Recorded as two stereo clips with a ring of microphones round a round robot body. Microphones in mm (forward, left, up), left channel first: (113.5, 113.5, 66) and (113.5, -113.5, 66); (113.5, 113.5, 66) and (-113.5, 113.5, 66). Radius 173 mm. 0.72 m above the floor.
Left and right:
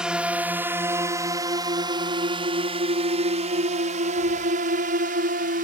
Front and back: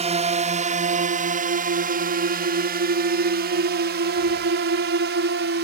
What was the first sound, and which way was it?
A drone, 175° right.